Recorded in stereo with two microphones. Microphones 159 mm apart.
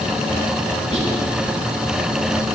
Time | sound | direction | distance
0.9 | whispering | 45° right (ahead or behind) | 1.9 m